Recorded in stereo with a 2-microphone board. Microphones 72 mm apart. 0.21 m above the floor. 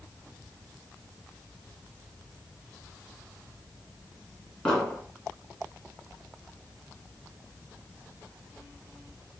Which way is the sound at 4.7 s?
10° left (ahead or behind).